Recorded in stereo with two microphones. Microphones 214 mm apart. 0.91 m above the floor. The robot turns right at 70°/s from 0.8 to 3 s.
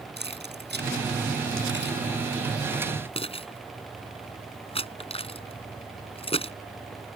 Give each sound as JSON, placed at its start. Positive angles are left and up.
{"t": 0.2, "sound": "keys jangling", "side_deg": -55}